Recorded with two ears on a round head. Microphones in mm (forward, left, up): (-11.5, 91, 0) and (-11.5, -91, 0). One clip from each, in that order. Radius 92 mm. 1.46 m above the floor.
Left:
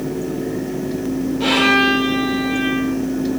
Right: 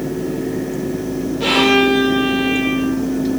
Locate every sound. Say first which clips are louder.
1.4 s a violin: right 1 dB; 15° left (ahead or behind), 7 m